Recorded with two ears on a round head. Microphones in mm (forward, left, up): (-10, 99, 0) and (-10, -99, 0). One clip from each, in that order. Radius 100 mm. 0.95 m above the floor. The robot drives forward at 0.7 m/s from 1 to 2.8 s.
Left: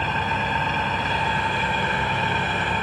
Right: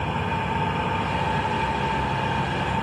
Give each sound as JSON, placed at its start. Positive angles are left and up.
{"t": 0.0, "sound": "an engine running", "side_deg": 60, "distance_m": 2.0}